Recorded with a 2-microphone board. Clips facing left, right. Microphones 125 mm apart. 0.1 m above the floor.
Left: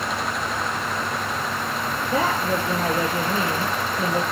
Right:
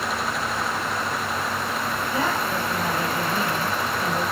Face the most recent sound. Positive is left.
turn(degrees=60)  # may be behind; listen again after turning